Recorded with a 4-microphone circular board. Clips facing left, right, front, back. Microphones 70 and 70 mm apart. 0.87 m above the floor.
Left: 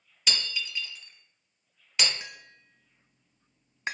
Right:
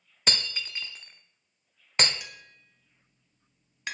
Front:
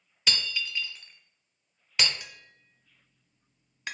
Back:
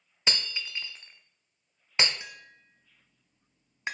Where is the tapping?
130° left, 0.8 m.